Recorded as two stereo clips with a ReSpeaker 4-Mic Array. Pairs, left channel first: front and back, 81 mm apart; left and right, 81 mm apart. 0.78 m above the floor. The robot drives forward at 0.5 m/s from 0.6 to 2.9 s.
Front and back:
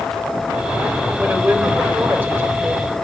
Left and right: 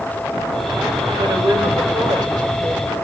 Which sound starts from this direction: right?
A woman speaking, at 1.2 s.